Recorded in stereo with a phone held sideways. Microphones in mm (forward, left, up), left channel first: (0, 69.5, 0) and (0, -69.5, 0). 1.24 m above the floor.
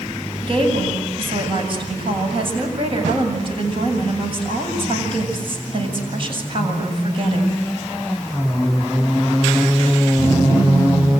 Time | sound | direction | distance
0.4 | a woman speaking | 40° right (ahead or behind) | 7.5 m